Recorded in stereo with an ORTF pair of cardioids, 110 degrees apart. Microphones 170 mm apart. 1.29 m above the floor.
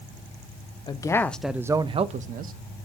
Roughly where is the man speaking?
Ahead left.